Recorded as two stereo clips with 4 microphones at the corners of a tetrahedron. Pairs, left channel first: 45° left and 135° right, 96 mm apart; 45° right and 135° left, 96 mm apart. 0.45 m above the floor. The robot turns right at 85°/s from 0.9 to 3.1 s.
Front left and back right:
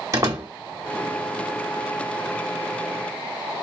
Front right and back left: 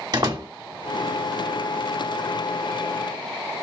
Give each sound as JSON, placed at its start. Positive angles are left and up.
{"t": 0.1, "sound": "a door slam", "azimuth_deg": 175, "distance_m": 1.3}